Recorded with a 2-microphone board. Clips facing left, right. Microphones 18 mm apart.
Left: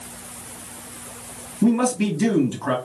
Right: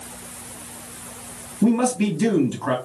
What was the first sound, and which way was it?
A man speaking, centre (ahead or behind).